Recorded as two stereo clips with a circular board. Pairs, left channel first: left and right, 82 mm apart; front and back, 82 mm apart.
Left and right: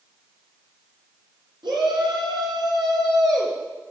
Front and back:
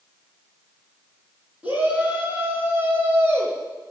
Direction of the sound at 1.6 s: 110° right.